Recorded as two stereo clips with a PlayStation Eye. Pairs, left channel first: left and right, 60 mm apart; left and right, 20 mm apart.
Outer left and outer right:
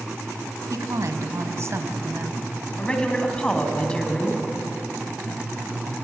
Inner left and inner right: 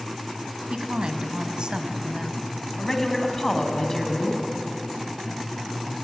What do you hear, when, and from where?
0.7 s a woman speaking: 65° right (ahead or behind), 2 m; by 2.6 s 30° right (ahead or behind), 1.6 m
2.8 s a man speaking: 15° left (ahead or behind), 2.5 m